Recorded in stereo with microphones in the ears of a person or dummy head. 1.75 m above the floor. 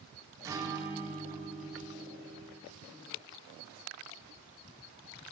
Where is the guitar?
15° right (ahead or behind), 1.9 m.